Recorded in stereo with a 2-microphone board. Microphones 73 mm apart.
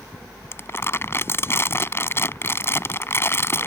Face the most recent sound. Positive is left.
turn(degrees=35)  # may be behind; listen again after turning